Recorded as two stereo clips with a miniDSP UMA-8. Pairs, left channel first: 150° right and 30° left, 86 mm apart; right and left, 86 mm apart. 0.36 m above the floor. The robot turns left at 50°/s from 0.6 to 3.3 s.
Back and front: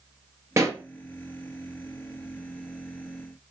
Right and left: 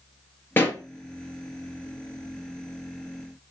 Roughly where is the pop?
Ahead right.